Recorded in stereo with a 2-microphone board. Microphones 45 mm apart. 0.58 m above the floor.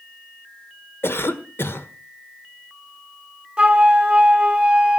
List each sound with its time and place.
1.0 s a cough: 60° left (ahead or behind), 1.5 m
3.6 s a flute: 25° right (ahead or behind), 0.9 m